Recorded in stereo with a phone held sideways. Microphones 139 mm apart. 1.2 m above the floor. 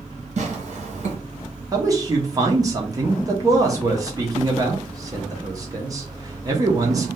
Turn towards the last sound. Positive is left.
turn(degrees=-25)  # may be behind; listen again after turning